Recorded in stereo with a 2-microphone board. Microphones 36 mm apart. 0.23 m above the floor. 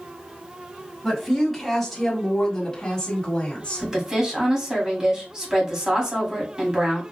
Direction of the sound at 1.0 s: 5° right (ahead or behind).